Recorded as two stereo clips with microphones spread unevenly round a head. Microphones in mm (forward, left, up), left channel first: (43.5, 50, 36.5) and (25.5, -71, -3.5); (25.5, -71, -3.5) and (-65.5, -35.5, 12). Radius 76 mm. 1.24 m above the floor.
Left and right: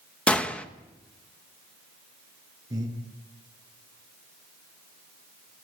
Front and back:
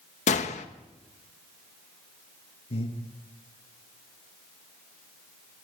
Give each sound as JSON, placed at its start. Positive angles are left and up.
{"t": 0.3, "sound": "a gunshot", "azimuth_deg": 0, "distance_m": 1.2}
{"t": 2.7, "sound": "breathing", "azimuth_deg": -35, "distance_m": 7.5}